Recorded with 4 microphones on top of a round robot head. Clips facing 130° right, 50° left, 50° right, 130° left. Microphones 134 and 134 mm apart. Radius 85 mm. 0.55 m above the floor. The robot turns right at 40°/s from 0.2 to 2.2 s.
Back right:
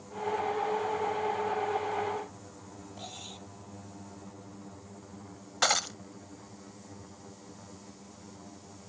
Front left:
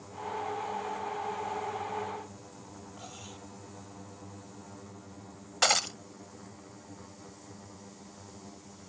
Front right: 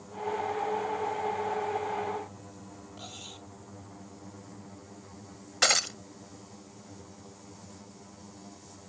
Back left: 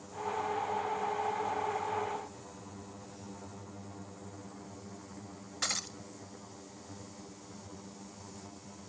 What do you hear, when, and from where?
3.0 s cutlery clinking: 65° right
5.6 s breaking glass: 35° right